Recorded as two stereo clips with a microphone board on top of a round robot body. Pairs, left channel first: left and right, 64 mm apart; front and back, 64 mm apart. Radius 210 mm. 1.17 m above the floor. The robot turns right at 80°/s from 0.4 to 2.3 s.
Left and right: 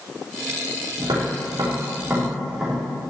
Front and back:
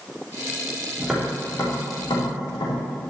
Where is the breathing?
No breathing in this recording.